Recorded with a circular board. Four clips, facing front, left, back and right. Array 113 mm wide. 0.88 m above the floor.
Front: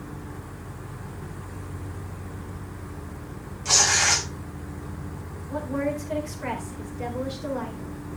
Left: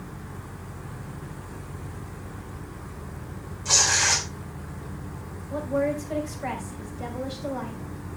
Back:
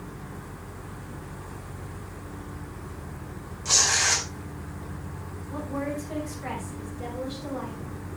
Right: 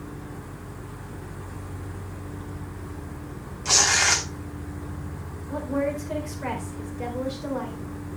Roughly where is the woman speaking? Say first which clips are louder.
Left 1 dB, front 4 dB; ahead right.